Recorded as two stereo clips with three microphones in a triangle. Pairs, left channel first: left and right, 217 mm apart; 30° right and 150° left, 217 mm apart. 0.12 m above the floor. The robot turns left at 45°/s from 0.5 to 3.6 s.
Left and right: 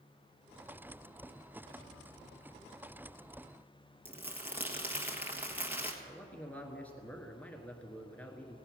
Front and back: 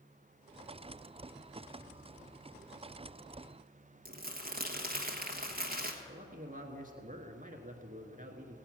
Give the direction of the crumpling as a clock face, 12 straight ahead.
6 o'clock.